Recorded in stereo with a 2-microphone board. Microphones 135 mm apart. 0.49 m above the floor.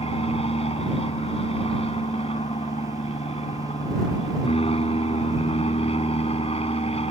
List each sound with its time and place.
0.0 s an aircraft: 45° left (ahead or behind)